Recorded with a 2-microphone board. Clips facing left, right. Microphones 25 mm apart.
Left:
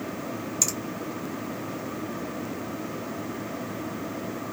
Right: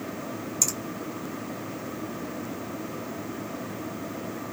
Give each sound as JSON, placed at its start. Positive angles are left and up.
{"t": 0.6, "sound": "a finger snap", "side_deg": 15, "distance_m": 2.5}